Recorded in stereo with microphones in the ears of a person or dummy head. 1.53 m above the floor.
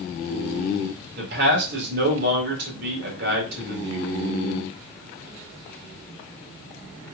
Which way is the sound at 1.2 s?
60° right (ahead or behind).